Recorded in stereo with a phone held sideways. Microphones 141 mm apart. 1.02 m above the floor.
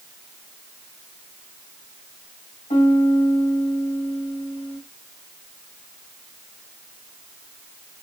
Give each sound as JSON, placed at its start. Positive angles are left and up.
{"t": 2.7, "sound": "a piano", "side_deg": 70, "distance_m": 2.0}